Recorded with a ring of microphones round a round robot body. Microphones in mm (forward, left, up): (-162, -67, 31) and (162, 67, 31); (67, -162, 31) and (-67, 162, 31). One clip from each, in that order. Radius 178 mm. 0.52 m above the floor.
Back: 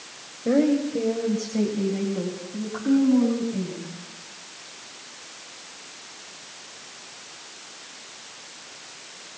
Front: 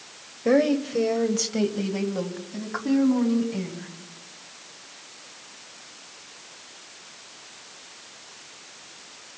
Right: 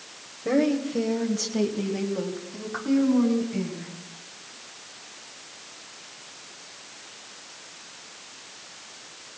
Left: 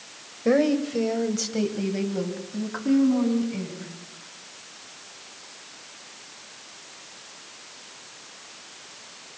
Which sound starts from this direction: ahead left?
A woman speaking, at 0.5 s.